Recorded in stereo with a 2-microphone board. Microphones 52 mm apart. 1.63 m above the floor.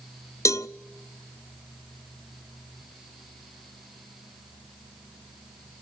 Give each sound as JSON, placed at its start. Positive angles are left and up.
{"t": 0.5, "sound": "a cowbell", "side_deg": 75, "distance_m": 0.7}